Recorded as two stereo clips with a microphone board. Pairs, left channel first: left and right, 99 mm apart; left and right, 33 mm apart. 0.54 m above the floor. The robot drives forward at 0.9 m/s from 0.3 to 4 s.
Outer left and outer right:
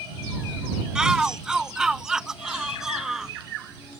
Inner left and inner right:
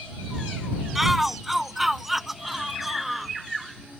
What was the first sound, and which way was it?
A shout, 5° right (ahead or behind).